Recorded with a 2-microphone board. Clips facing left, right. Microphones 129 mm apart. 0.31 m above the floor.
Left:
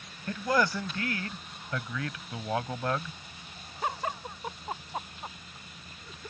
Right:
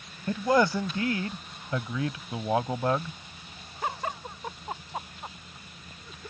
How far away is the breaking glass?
No breaking glass in this recording.